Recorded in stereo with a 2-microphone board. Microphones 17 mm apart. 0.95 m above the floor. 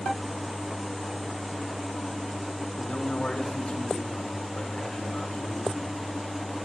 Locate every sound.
2.8 s a man speaking: 80° left, 2.5 m